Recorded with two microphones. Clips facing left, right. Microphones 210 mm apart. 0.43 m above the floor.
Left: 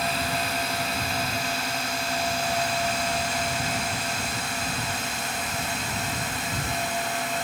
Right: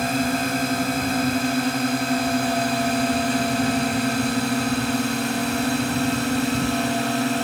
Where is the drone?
50° right (ahead or behind); by 7.4 s 70° right (ahead or behind).